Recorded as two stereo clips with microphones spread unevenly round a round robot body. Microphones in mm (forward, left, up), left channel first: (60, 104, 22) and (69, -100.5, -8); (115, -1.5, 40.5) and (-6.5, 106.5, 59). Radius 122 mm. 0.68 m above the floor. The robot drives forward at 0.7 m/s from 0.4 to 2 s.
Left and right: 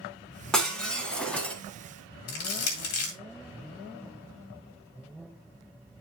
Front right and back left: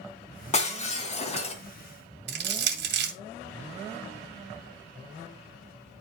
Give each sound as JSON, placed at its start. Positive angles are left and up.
{"t": 0.5, "sound": "breaking glass", "azimuth_deg": 5, "distance_m": 2.5}
{"t": 2.3, "sound": "crushing", "azimuth_deg": 130, "distance_m": 2.0}